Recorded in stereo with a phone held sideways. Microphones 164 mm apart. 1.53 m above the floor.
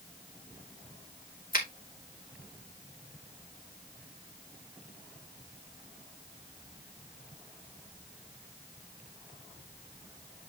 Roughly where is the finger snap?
Left.